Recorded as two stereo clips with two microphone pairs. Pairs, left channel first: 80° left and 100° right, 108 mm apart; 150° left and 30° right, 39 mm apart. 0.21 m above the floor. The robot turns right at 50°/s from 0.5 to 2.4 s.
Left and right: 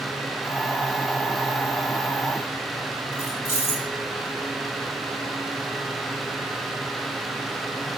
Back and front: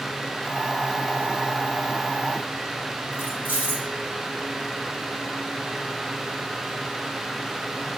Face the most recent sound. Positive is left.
turn(degrees=145)